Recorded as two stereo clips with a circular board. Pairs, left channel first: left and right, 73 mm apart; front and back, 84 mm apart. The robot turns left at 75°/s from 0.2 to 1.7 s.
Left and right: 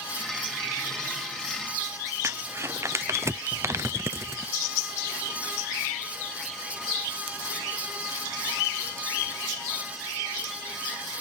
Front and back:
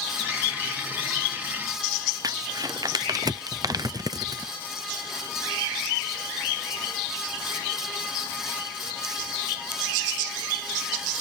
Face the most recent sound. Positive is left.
turn(degrees=-140)